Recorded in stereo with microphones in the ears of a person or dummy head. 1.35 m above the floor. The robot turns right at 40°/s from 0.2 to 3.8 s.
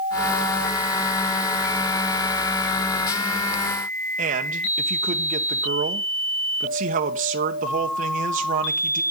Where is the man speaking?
40° right (ahead or behind), 0.9 m.